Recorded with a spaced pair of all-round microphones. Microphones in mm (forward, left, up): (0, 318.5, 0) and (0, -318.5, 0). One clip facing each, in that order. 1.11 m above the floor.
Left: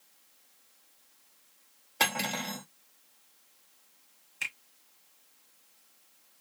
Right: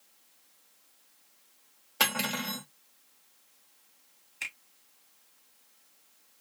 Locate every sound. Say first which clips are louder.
2.0 s cutlery clinking: right 1 dB; 40° right (ahead or behind), 0.9 m
4.4 s a finger snap: left 2 dB; 40° left (ahead or behind), 1.4 m